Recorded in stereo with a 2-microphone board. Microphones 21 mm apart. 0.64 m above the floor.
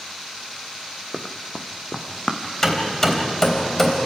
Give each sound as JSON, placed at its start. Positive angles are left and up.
{"t": 1.1, "sound": "running footsteps", "side_deg": 5, "distance_m": 1.6}
{"t": 2.6, "sound": "hammering", "side_deg": 20, "distance_m": 3.0}